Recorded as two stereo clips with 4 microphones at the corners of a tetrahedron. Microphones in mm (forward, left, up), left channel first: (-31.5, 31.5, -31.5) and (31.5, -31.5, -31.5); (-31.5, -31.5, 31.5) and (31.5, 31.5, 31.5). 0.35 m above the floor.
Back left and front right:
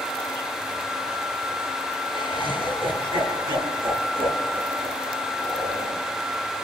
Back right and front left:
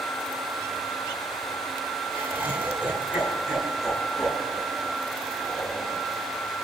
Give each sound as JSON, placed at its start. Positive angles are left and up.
{"t": 2.1, "sound": "laughter", "azimuth_deg": -25, "distance_m": 7.0}